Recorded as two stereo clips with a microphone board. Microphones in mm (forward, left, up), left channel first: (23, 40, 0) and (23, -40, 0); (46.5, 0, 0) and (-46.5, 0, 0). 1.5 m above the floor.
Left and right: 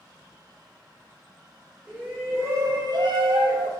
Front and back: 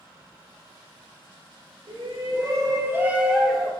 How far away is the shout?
About 2 m.